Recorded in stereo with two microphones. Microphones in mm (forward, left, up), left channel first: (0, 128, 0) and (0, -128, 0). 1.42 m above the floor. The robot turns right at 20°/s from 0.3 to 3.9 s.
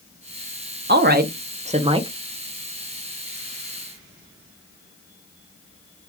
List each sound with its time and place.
0.9 s a woman speaking: 40° right (ahead or behind), 0.7 m; by 2.1 s 15° right (ahead or behind), 0.7 m